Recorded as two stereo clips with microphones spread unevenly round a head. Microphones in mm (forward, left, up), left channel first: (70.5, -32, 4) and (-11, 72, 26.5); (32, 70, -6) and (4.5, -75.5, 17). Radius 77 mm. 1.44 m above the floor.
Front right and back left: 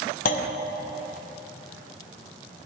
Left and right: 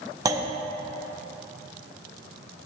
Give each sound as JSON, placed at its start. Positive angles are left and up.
{"t": 0.2, "sound": "a clunk", "azimuth_deg": -50, "distance_m": 0.7}